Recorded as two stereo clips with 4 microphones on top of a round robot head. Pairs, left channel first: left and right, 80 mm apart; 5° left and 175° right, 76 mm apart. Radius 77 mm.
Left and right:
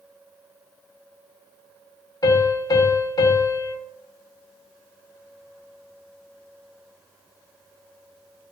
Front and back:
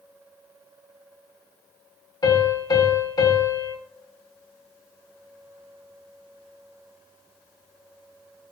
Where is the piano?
45° left, 1.7 m.